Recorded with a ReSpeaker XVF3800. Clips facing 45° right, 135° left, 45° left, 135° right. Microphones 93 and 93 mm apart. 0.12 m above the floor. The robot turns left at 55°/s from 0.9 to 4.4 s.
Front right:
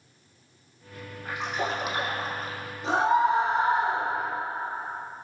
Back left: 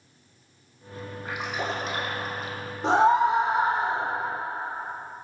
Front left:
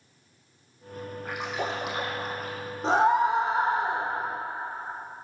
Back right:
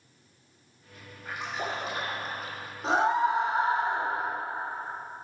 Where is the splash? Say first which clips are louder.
Front right 1 dB, front left 2 dB; 70° left, 3 m; by 2.6 s 5° right, 3 m.